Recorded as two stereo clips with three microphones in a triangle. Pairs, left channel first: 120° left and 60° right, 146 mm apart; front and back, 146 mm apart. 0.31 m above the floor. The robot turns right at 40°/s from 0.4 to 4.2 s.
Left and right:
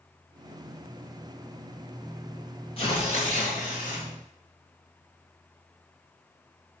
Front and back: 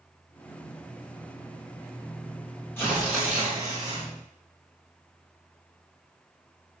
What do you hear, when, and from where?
2.8 s tearing paper: 75° left, 3.5 m; by 4.1 s 125° left, 3.5 m